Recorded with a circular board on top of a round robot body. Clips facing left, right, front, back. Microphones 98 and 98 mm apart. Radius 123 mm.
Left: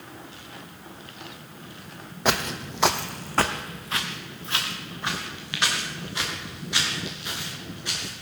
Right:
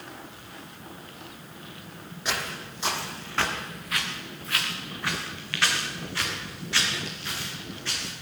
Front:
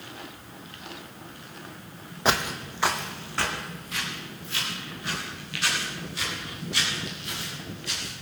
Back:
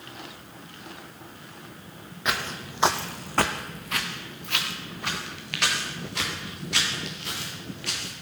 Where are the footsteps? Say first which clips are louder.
Left 7 dB, front 4 dB; 55° left, 0.7 m; by 8.1 s 165° left, 6.5 m.